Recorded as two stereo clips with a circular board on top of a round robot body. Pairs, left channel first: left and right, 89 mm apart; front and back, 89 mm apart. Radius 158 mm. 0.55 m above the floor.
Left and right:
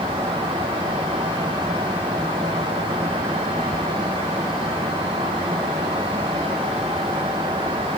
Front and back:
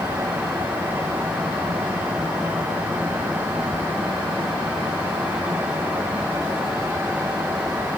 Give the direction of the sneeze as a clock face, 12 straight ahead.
I don't hear a sneeze.